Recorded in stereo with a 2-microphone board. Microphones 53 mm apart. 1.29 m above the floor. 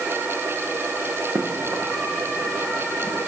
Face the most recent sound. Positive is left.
turn(degrees=-75)  # may be behind; listen again after turning